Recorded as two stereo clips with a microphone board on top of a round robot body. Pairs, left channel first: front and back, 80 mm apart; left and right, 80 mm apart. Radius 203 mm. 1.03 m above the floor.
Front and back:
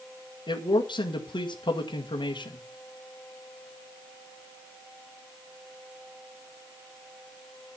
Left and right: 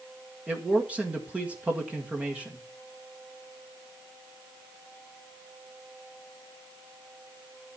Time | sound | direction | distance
0.5 | a man speaking | 15° right | 2.0 m